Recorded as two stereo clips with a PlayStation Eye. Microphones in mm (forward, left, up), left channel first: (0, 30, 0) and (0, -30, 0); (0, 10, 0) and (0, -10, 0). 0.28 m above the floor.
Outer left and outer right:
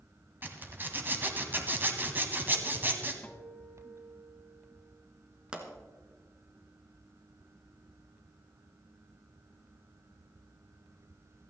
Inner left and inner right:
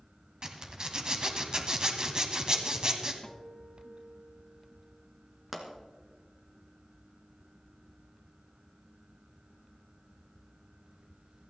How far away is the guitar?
About 1.7 m.